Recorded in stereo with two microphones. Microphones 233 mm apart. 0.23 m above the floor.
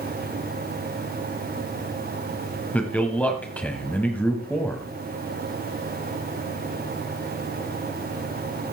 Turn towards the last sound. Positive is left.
turn(degrees=5)  # may be behind; listen again after turning